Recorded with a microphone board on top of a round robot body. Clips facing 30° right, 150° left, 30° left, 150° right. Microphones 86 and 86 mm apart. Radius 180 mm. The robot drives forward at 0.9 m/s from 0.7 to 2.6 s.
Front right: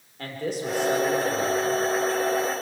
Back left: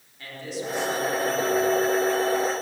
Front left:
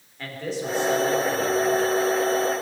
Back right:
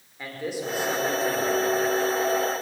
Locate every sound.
0.2 s a man speaking: 70° right, 5 m; by 1.6 s 80° right, 5 m